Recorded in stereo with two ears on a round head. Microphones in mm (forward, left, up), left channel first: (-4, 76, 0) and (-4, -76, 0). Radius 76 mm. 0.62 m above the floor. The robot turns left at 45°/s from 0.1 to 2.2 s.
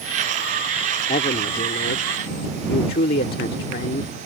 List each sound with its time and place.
1.1 s a man speaking: 130° left; by 4.1 s 80° left